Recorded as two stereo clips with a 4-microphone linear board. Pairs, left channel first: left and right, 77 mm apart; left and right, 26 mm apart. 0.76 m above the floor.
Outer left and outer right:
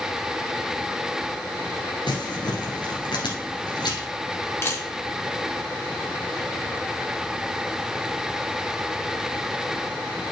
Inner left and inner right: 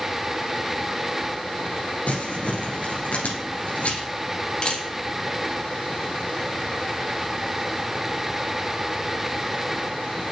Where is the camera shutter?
35° left (ahead or behind), 2 m.